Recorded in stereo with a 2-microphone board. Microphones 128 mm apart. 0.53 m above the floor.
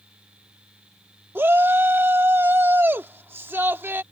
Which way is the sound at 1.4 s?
15° right (ahead or behind).